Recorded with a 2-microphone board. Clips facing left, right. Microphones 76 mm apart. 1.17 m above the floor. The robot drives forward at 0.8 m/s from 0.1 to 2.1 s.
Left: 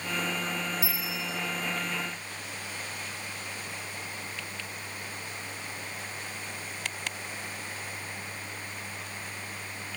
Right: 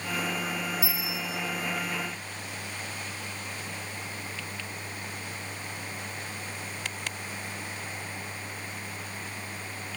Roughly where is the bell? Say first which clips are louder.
Right 1 dB; right.